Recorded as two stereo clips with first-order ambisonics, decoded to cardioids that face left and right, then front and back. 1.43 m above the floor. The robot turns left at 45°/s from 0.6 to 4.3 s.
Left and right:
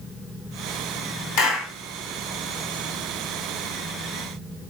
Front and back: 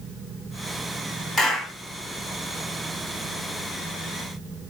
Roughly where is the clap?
Left.